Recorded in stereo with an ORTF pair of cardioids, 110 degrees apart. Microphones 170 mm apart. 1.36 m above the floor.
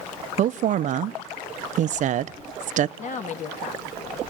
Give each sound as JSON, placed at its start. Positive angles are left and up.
{"t": 0.4, "sound": "a woman speaking", "azimuth_deg": -45, "distance_m": 0.5}
{"t": 3.0, "sound": "a woman speaking", "azimuth_deg": 45, "distance_m": 2.0}